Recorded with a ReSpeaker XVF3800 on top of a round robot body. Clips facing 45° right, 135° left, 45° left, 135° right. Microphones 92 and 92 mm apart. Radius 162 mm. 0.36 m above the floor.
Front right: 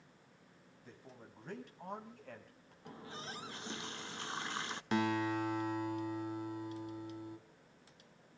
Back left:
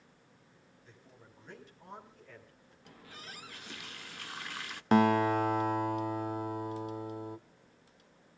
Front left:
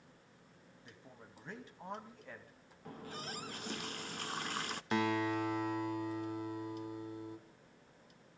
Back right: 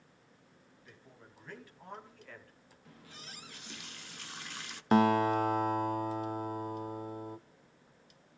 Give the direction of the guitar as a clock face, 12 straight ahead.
6 o'clock.